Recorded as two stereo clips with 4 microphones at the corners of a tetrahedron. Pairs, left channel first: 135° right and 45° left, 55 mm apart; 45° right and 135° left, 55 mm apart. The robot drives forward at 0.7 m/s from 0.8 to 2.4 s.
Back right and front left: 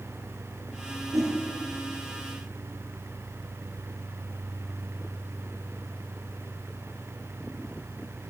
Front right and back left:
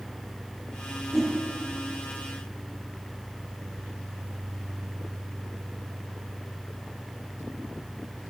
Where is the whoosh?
50° left, 1.8 m.